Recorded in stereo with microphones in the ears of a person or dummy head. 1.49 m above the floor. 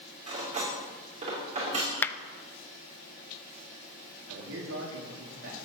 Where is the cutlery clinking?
45° right (ahead or behind), 3 m.